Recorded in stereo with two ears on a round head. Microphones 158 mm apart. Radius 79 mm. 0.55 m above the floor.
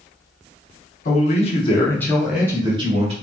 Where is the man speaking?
50° left (ahead or behind), 1.1 m; by 3.1 s 40° right (ahead or behind), 1.0 m.